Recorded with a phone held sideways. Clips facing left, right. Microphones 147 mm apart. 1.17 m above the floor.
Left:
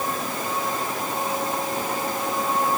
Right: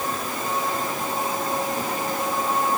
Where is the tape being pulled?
I don't hear tape being pulled.